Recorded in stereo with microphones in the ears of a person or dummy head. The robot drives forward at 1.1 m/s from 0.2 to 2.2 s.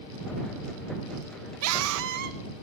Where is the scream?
80° right, 0.6 m; by 2.4 s 45° right (ahead or behind), 0.9 m.